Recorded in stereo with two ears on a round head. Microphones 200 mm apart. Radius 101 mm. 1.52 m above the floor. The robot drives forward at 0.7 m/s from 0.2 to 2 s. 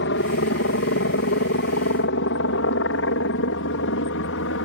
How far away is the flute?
I don't hear a flute.